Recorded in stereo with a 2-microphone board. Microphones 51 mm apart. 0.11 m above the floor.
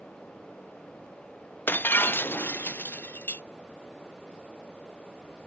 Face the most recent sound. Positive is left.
turn(degrees=40)  # may be behind; listen again after turning